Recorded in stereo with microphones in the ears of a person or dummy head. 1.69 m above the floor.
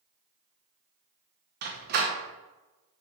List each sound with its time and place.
1.6 s a door slam: 50° right (ahead or behind), 1.0 m